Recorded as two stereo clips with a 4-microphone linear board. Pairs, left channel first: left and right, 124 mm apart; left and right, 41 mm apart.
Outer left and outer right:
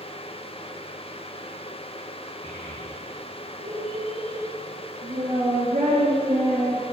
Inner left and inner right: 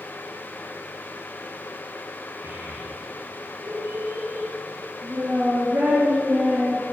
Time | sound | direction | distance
2.4 | a child speaking | 80° right | 5.5 m